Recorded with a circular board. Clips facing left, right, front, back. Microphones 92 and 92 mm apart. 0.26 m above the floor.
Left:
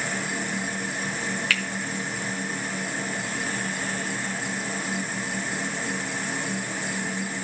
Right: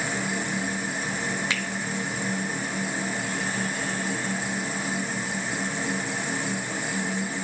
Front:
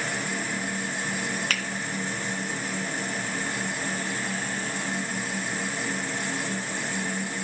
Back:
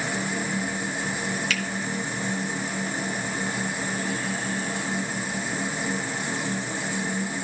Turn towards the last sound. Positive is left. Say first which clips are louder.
# left 1 dB, back 2 dB
turn(degrees=-25)